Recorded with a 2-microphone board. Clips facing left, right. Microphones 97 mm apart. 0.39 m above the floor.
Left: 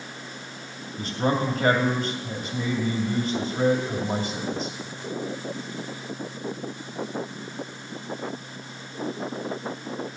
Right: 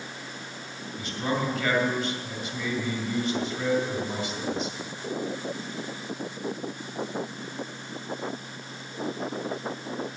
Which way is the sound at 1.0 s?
40° left (ahead or behind).